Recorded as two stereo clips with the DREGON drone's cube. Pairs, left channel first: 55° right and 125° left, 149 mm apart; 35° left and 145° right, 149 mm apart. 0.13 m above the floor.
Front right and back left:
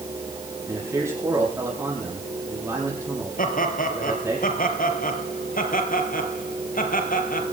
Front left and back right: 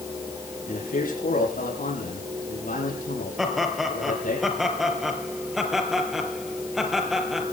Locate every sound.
0.7 s a man speaking: 50° left, 7.5 m
3.4 s laughter: 55° right, 4 m